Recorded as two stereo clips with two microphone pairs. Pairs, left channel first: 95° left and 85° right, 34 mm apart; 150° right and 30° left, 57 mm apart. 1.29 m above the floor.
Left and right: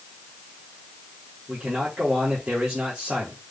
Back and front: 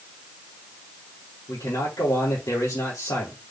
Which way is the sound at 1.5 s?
150° right.